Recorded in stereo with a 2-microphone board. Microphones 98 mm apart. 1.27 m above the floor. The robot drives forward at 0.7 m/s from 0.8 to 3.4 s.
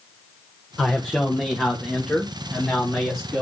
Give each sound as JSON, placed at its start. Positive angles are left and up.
{"t": 0.8, "sound": "a man speaking", "side_deg": 10, "distance_m": 1.0}